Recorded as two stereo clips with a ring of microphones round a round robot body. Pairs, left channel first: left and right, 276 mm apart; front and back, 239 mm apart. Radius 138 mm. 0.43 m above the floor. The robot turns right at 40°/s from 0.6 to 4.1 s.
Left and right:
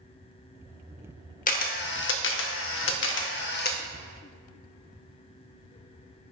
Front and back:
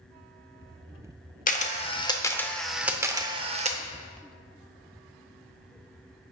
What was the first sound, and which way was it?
A camera shutter, 40° left.